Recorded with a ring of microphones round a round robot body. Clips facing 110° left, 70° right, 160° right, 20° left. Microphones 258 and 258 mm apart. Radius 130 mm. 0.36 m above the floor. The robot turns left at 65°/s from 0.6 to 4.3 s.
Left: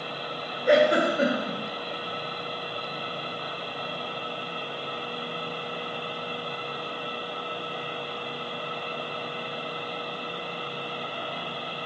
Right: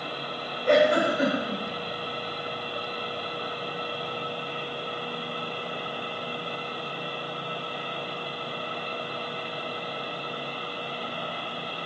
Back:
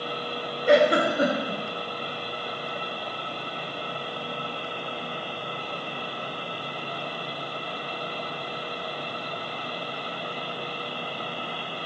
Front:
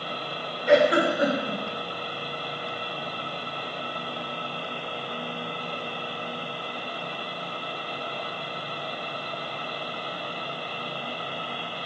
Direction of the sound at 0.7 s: 170° right.